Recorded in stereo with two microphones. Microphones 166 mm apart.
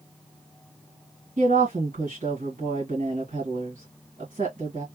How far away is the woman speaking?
About 2.0 m.